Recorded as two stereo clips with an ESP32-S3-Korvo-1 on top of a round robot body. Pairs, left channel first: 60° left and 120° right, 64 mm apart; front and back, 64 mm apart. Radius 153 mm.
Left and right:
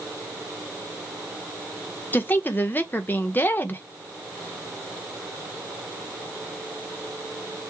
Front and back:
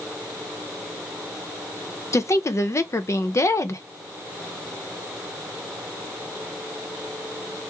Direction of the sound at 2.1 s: 10° left.